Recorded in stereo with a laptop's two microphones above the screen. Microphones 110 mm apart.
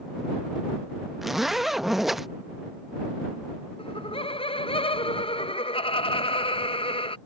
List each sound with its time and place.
1.2 s a zipper: centre (ahead or behind)
3.8 s laughter: 55° left (ahead or behind)